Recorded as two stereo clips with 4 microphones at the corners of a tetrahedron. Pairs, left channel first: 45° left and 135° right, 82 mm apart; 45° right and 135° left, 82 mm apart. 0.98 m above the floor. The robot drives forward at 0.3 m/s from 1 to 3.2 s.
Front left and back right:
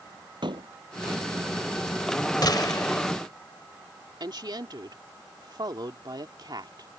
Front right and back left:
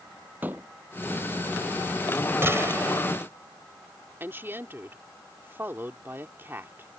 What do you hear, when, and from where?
0.4 s a door slam: 155° right
2.4 s a gunshot: 75° left; by 3.1 s 80° left
4.2 s a woman speaking: 165° right